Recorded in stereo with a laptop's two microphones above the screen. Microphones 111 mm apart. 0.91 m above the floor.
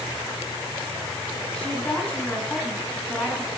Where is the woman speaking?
10° left (ahead or behind), 9 m.